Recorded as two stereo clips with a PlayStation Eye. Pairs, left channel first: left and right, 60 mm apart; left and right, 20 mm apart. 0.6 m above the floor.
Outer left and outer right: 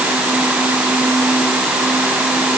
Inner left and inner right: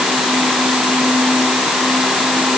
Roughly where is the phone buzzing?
No phone buzzing in this recording.